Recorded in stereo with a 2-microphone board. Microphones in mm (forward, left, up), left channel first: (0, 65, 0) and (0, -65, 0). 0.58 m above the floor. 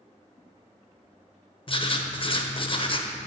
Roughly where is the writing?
Left.